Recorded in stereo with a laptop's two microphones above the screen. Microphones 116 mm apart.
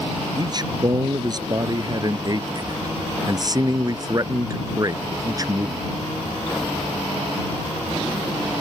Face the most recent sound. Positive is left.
turn(degrees=-30)  # may be behind; listen again after turning